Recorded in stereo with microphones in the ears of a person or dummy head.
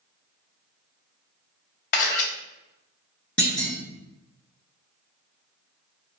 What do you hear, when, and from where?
1.9 s a camera shutter: 45° left (ahead or behind), 0.7 m
3.4 s a clunk: 5° left (ahead or behind), 0.7 m